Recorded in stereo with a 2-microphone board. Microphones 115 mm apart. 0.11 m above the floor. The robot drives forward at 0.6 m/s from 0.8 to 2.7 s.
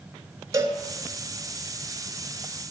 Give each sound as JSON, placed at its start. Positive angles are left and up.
{"t": 0.5, "sound": "a cowbell", "side_deg": -25, "distance_m": 1.2}